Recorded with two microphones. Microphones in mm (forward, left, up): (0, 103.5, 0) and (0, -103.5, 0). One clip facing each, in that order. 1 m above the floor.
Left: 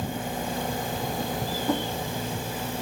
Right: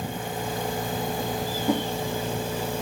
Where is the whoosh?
15° right (ahead or behind), 2 m.